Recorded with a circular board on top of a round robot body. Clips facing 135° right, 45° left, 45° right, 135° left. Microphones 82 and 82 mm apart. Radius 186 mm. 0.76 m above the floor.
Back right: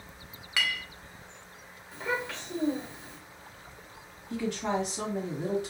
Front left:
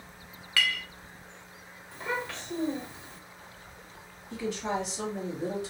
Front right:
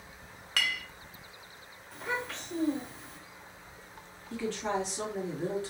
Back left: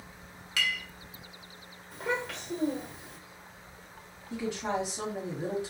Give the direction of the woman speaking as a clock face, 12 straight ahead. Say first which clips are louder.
Back right 1 dB, even; 5 o'clock.